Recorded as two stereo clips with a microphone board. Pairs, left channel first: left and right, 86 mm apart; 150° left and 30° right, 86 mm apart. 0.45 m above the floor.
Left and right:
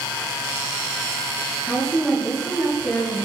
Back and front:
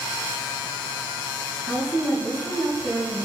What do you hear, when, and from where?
1.6 s a woman speaking: straight ahead, 2.5 m